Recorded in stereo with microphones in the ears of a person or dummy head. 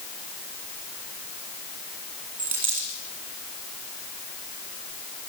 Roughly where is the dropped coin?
Right.